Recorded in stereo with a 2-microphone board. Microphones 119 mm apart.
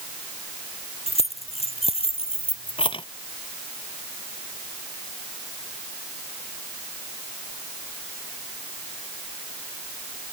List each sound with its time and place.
1.1 s keys jangling: 60° left (ahead or behind); by 3.0 s 45° left (ahead or behind)